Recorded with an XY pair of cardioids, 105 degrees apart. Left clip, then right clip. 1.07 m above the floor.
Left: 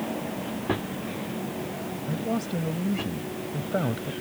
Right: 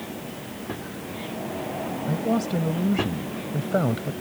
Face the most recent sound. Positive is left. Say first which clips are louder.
# right 4 dB
turn(degrees=-25)